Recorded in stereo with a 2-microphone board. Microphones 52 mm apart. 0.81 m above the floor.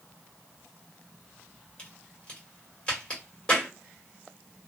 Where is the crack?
20° left (ahead or behind), 1.5 m.